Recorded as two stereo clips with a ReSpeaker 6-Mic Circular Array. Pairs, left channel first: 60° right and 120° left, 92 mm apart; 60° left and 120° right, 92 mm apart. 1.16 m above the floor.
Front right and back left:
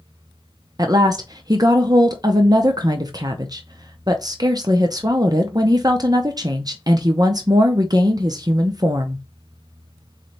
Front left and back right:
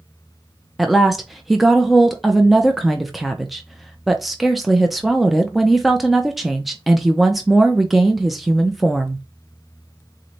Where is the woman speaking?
150° left, 0.6 m.